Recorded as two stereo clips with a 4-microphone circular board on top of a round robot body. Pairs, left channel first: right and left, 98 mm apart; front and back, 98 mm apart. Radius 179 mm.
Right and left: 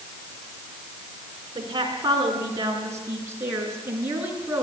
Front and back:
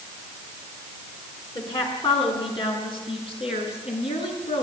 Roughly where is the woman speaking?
Ahead left.